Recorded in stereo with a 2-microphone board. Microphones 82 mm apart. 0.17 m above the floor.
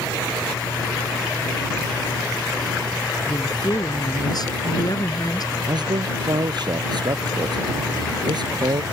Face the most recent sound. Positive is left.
turn(degrees=-60)  # may be behind; listen again after turning